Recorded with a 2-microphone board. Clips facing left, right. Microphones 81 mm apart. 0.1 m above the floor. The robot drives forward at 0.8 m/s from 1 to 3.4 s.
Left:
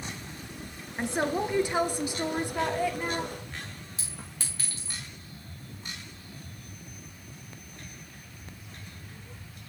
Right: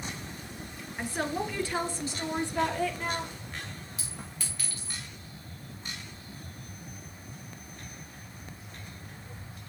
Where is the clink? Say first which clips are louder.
Right 1 dB; 30° left (ahead or behind), 4.5 m.